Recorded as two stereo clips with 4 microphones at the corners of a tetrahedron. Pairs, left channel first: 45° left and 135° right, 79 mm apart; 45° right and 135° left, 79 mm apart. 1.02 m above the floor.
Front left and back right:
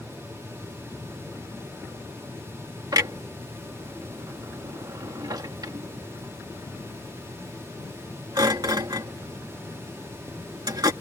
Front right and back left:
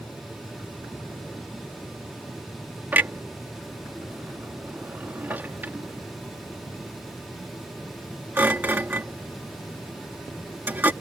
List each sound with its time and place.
2.9 s a clunk: 160° right